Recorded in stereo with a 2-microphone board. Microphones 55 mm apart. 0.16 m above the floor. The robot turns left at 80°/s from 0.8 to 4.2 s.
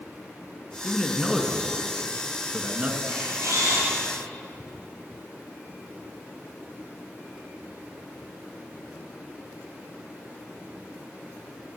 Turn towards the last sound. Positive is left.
turn(degrees=-125)